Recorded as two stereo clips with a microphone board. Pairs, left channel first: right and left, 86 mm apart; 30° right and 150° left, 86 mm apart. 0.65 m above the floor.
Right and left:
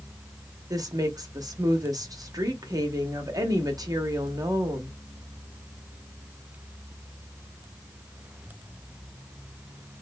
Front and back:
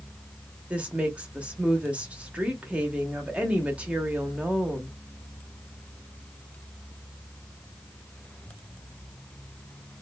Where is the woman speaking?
80° left, 0.7 m.